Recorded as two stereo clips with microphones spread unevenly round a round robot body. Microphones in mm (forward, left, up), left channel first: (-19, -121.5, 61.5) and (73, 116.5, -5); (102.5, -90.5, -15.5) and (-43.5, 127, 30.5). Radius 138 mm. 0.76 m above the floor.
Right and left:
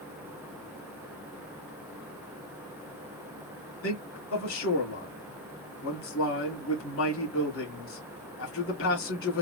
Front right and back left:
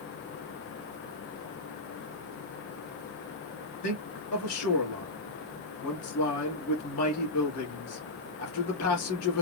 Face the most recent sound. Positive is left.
turn(degrees=-70)